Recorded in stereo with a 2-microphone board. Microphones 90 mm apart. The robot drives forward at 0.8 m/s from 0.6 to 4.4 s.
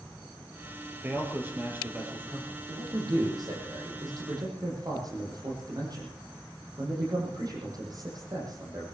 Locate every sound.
1.0 s a man speaking: 25° right (ahead or behind), 5.5 m; by 2.6 s 20° right (ahead or behind), 6.5 m
2.7 s a man speaking: 50° right (ahead or behind), 8.5 m; by 8.8 s 45° right (ahead or behind), 9.5 m